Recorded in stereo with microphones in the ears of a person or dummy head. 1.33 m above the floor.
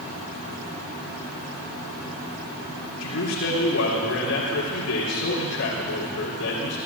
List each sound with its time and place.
3.0 s a man speaking: 85° left, 4 m